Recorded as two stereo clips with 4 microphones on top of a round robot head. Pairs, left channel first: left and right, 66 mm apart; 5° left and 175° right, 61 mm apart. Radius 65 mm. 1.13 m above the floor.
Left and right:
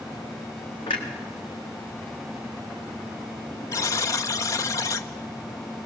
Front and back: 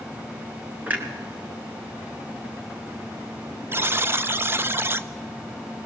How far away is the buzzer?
About 0.8 m.